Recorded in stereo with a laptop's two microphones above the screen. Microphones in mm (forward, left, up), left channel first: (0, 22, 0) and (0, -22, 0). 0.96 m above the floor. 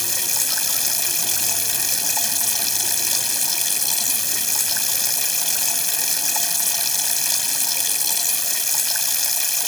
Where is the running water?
5° left (ahead or behind).